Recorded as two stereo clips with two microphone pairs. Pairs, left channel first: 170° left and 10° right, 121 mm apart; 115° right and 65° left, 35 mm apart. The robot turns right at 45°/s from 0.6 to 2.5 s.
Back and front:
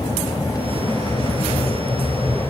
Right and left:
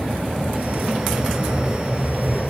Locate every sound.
0.0 s an aircraft: 125° left; by 2.5 s 150° right